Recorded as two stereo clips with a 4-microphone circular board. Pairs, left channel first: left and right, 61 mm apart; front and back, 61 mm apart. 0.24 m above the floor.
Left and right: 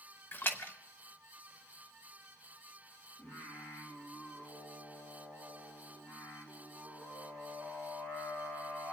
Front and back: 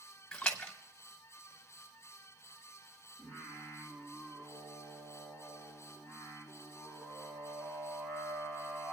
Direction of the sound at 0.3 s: 65° left.